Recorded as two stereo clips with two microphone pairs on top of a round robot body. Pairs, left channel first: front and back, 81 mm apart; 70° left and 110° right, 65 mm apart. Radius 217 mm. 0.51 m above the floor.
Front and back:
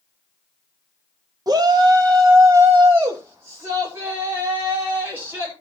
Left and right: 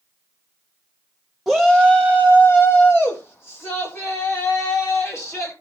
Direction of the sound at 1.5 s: 155° left.